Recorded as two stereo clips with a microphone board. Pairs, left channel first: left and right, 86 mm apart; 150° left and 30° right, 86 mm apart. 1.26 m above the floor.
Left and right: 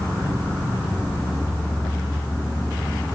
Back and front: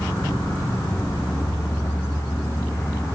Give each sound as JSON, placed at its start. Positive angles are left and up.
{"t": 0.0, "sound": "an insect", "azimuth_deg": 145, "distance_m": 3.0}